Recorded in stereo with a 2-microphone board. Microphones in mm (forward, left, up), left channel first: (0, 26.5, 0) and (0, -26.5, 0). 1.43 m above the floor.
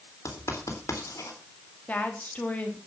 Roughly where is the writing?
Left.